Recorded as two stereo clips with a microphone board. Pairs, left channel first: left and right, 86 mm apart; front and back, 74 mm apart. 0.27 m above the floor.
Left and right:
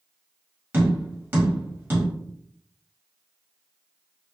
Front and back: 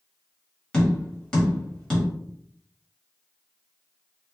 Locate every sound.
0.7 s tapping: 65° right, 1.3 m